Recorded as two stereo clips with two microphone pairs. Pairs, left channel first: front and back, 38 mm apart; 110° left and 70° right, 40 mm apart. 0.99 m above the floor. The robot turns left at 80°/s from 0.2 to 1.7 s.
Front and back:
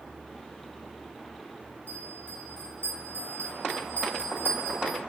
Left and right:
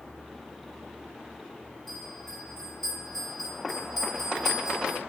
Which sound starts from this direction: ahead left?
A bell, at 1.9 s.